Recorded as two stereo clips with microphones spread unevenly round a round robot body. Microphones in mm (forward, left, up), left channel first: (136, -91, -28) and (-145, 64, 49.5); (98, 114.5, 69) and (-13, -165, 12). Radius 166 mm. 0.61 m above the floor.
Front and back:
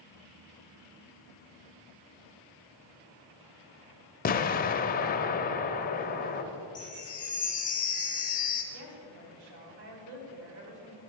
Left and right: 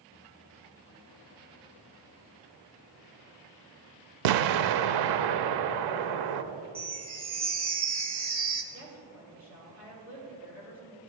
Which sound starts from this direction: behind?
A woman speaking, at 8.7 s.